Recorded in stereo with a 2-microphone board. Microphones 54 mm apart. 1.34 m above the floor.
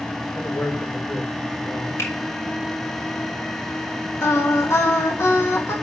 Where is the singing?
55° left (ahead or behind), 1.8 m.